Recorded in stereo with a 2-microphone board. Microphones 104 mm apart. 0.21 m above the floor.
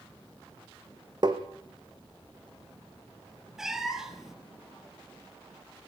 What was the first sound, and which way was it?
Tapping, 45° right (ahead or behind).